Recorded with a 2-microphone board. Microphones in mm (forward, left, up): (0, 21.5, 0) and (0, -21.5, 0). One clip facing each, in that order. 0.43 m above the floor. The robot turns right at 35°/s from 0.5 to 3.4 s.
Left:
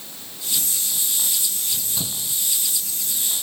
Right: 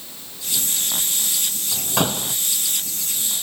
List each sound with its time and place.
1.7 s a door slam: 75° right (ahead or behind); by 2.4 s 50° right (ahead or behind)